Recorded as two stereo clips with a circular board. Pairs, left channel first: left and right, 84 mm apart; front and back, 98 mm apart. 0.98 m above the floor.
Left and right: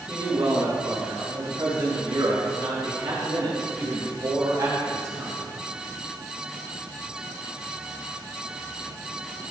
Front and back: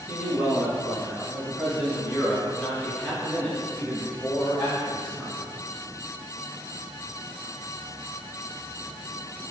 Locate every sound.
0.1 s a man speaking: 105° right, 3.5 m; by 5.5 s 55° right, 2.5 m